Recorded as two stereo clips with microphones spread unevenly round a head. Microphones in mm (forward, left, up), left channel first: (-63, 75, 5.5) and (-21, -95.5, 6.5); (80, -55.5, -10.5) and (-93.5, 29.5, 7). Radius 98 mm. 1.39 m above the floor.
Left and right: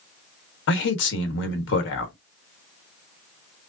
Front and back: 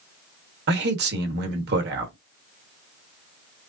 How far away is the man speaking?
About 1.3 m.